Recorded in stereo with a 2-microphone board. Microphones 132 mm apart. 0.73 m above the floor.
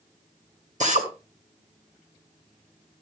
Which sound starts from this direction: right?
A drill, at 0.8 s.